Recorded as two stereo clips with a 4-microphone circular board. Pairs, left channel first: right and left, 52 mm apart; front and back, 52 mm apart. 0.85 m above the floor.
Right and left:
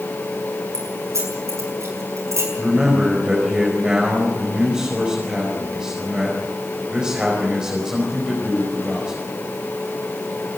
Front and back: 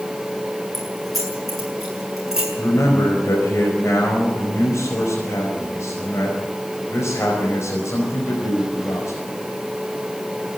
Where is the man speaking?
15° left, 5 m.